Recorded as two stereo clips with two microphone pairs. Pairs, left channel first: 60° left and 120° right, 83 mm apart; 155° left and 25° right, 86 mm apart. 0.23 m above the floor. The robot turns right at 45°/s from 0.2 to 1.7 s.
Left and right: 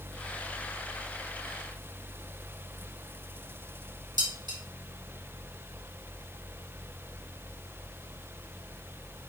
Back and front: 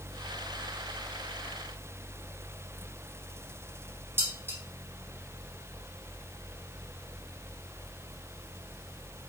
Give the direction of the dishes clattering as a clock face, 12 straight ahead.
3 o'clock.